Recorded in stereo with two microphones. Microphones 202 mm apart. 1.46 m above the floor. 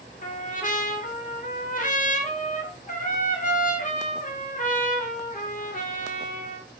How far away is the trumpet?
About 0.6 m.